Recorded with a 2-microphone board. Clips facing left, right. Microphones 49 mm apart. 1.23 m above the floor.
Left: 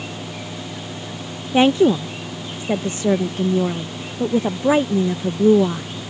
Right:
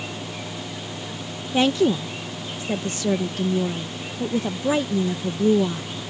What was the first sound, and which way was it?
A woman speaking, 30° left (ahead or behind).